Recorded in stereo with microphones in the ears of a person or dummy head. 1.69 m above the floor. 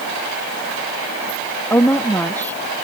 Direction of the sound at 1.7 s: 15° left (ahead or behind).